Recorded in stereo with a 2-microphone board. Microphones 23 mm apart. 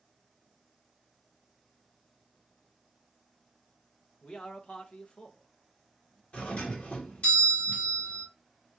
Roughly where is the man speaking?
Left.